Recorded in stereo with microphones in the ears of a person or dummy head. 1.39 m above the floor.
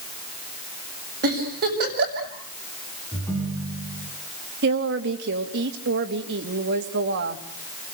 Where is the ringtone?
15° left (ahead or behind), 6.5 m.